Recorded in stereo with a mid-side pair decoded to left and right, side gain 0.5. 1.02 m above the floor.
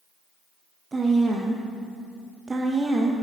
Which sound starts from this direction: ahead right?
A woman speaking, at 0.9 s.